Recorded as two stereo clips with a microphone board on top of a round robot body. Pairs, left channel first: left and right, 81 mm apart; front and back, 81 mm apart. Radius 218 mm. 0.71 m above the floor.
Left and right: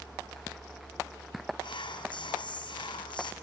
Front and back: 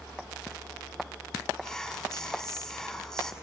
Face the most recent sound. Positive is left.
turn(degrees=85)